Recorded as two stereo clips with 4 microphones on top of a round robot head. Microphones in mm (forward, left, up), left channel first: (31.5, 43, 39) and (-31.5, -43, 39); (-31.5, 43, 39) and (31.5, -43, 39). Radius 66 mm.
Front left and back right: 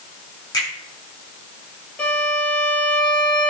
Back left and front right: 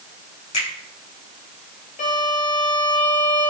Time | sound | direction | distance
0.5 | a finger snap | 105° left | 5.5 m
2.0 | a violin | 130° left | 3.5 m